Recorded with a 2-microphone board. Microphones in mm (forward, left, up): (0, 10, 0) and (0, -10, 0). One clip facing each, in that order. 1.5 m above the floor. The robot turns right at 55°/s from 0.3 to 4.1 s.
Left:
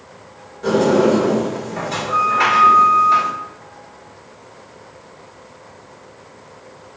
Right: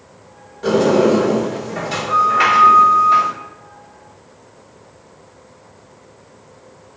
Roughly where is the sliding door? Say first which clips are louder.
Right 1 dB; behind right.